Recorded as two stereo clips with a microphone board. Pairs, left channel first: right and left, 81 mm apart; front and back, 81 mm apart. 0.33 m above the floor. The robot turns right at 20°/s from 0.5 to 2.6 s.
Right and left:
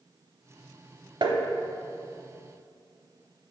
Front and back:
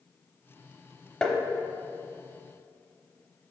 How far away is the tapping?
About 0.7 m.